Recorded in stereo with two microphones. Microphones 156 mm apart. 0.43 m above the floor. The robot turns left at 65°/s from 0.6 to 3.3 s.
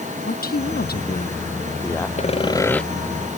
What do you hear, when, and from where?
0.3 s a man speaking: 105° left; by 2.1 s 5° left
2.2 s sawing: 50° left; by 2.8 s 5° left